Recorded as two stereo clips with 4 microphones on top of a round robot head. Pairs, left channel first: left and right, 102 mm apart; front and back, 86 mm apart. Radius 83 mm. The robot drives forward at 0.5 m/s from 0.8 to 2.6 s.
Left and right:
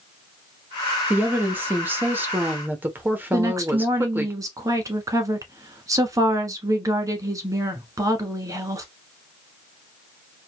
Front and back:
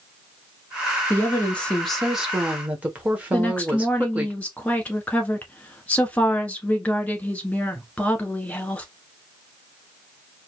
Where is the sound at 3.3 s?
65° right, 1.1 m.